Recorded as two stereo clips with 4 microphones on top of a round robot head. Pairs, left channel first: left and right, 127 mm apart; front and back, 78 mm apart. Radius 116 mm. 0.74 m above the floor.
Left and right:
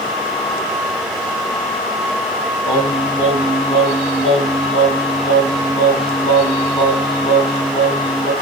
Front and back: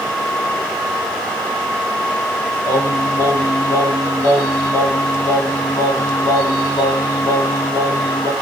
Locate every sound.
2.6 s singing: 35° left, 3 m